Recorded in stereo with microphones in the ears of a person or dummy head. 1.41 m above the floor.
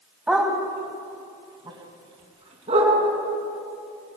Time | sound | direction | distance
0.3 | a dog barking | 5° right (ahead or behind) | 4 m